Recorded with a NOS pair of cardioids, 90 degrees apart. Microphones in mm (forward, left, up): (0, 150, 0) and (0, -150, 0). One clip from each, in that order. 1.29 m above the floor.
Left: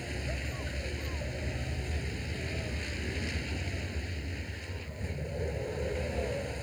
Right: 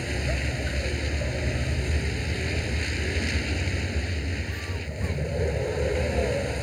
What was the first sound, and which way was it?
A vehicle, 60° right.